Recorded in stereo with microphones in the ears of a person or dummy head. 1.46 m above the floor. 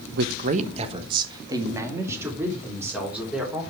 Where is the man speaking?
60° right (ahead or behind), 0.9 m; by 3.6 s 5° right (ahead or behind), 4 m.